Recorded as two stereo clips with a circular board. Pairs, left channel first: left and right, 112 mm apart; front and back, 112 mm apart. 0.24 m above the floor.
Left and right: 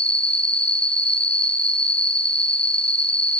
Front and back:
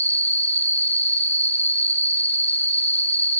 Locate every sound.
0.0 s an insect: 10° left, 4.5 m